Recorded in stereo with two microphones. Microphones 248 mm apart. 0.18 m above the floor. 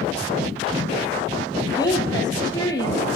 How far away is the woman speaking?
About 4 m.